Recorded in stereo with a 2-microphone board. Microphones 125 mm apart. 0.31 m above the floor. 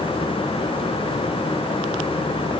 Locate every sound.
Only background noise.